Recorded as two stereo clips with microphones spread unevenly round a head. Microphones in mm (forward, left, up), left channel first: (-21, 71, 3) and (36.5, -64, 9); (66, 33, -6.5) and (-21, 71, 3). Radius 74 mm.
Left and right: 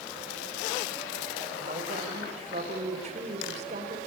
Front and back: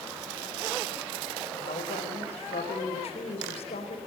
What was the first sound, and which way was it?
A woman speaking, 20° right.